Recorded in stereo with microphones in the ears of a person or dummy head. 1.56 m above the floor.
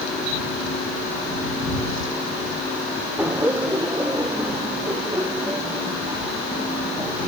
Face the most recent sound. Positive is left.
turn(degrees=-15)  # may be behind; listen again after turning